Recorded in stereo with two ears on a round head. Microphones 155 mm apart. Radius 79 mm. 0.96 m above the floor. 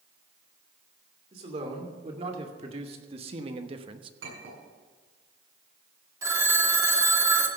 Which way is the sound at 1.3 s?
35° right (ahead or behind).